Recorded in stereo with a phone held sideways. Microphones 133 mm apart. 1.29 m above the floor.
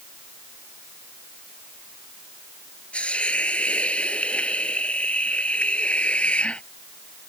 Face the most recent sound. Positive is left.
turn(degrees=10)  # may be behind; listen again after turning